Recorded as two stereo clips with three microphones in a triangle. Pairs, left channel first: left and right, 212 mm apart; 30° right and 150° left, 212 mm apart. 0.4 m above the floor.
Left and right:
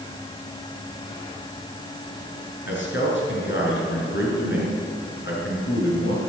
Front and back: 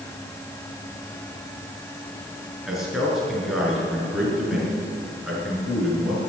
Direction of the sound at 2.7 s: 60° left.